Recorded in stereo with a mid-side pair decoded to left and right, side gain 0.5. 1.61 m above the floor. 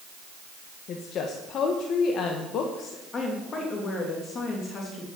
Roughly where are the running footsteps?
I don't hear running footsteps.